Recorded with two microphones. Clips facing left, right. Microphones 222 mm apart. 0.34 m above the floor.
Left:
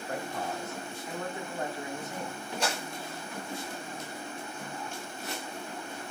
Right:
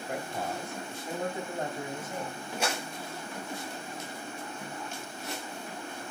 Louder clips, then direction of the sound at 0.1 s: Even; 10° right (ahead or behind).